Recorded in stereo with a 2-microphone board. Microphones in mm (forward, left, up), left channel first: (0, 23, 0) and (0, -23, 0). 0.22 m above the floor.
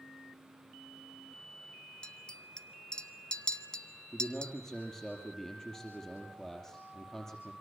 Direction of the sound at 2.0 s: 20° left (ahead or behind).